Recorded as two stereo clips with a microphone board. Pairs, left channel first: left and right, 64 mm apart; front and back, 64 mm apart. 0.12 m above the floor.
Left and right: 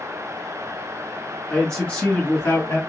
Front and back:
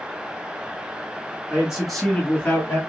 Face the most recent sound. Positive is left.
turn(degrees=40)